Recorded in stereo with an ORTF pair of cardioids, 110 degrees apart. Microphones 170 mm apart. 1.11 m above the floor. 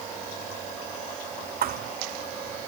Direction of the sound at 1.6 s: 65° right.